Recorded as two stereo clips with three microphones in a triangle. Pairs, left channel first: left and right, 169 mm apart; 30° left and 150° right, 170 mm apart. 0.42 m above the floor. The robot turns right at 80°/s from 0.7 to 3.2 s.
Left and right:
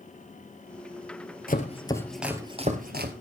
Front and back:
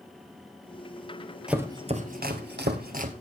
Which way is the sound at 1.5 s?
125° left.